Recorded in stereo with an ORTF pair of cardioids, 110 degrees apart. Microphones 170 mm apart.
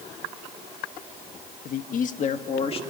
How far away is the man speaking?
About 1.8 m.